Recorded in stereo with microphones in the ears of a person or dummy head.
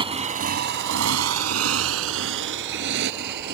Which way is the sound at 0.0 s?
25° right (ahead or behind).